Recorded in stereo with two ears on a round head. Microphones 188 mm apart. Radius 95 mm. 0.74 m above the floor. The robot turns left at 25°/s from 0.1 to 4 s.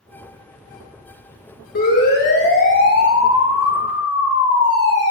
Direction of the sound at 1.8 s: 50° left (ahead or behind).